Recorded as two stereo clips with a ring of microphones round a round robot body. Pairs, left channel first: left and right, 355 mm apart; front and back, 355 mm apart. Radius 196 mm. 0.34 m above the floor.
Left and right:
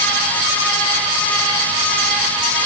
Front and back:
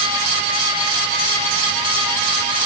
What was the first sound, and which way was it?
Only background noise.